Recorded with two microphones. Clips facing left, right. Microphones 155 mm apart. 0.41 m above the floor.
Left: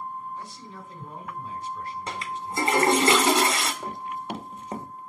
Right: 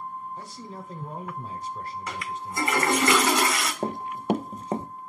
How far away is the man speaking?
About 1.3 m.